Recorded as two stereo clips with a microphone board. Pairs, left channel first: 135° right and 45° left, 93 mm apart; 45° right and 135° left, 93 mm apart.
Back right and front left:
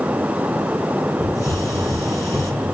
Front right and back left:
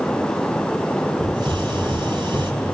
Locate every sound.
1.2 s a hiss: 170° left, 4 m